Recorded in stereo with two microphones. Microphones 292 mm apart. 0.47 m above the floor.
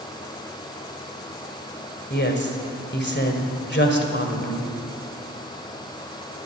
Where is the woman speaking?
35° left (ahead or behind), 2 m.